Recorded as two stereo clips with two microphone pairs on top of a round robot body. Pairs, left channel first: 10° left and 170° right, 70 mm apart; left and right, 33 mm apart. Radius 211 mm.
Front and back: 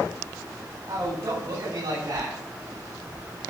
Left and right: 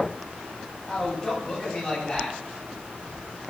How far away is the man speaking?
About 9 m.